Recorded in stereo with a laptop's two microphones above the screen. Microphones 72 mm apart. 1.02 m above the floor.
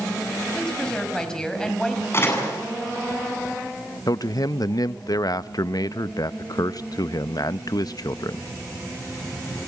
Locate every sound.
0.5 s a woman speaking: 10° left (ahead or behind), 6.5 m
2.1 s a door slam: 35° left (ahead or behind), 8.5 m
4.1 s a man speaking: 60° left (ahead or behind), 0.7 m